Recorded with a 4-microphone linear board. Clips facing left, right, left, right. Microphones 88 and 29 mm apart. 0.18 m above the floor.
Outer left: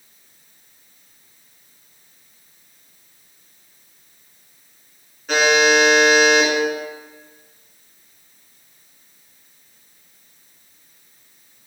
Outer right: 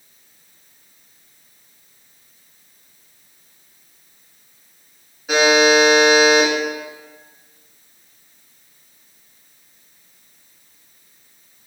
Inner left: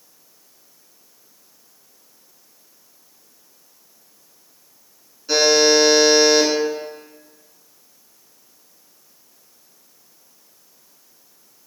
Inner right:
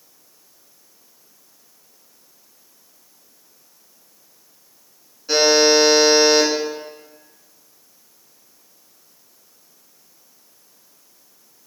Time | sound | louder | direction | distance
5.3 | a buzzer | outer right 2 dB, even | 5° right (ahead or behind) | 1.4 m